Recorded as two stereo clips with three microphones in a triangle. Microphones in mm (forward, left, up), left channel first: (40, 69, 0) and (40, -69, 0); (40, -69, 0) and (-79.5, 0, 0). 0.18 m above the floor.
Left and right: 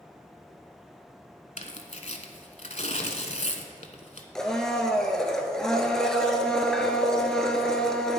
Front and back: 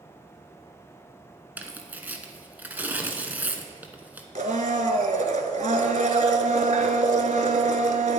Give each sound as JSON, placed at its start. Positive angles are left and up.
{"t": 1.6, "sound": "tearing paper", "azimuth_deg": 75, "distance_m": 0.9}
{"t": 4.3, "sound": "a blender", "azimuth_deg": 175, "distance_m": 0.8}